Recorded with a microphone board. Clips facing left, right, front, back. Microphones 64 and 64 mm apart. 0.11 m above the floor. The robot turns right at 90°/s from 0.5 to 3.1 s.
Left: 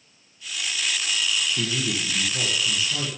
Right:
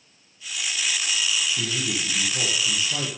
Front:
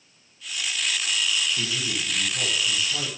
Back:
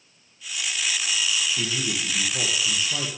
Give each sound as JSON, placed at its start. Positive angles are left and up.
{"t": 1.6, "sound": "a man speaking", "azimuth_deg": 100, "distance_m": 3.0}